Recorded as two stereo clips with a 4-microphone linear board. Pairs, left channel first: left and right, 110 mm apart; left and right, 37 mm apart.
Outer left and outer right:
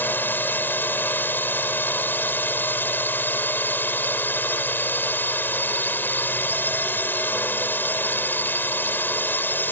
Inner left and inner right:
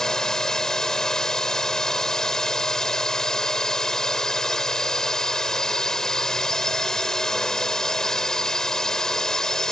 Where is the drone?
15° left (ahead or behind).